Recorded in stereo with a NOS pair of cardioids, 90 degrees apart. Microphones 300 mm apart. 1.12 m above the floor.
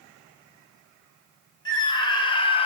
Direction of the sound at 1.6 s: 15° left.